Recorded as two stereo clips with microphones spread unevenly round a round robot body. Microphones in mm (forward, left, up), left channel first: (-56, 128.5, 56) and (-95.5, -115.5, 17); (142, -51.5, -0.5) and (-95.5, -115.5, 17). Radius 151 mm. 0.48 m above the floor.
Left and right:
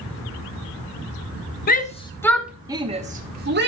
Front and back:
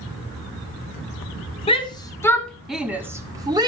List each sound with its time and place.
1.7 s a shout: 50° left, 0.8 m; by 3.7 s 90° right, 1.1 m